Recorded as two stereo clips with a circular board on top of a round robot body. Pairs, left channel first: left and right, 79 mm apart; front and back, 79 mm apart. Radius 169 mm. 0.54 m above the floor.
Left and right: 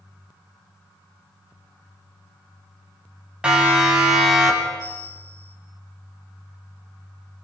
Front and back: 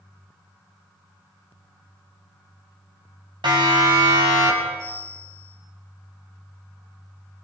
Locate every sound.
3.4 s a siren: 165° right, 6 m; by 4.7 s 175° right, 5.5 m
4.8 s a bell: 135° left, 9 m